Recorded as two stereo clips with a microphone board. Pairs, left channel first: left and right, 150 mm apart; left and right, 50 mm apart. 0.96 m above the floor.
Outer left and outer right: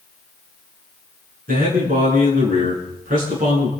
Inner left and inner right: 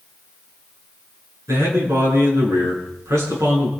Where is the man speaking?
85° right, 9 m.